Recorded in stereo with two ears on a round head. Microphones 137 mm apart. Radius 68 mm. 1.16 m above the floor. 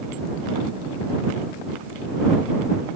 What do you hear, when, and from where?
Only background noise.